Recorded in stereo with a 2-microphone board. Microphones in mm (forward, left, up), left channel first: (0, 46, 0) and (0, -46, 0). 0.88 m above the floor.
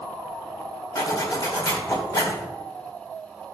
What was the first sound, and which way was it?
A zipper, 40° left (ahead or behind).